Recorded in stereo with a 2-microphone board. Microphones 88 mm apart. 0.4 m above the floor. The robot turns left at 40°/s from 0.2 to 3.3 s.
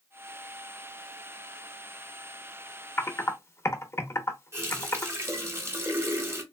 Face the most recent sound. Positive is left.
turn(degrees=-30)  # may be behind; listen again after turning